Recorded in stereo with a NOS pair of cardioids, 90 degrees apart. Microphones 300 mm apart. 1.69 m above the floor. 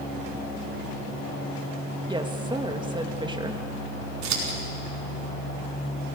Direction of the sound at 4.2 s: 65° right.